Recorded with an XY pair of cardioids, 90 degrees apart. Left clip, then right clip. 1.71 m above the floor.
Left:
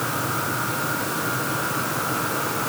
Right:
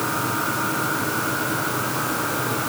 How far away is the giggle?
No giggle in this recording.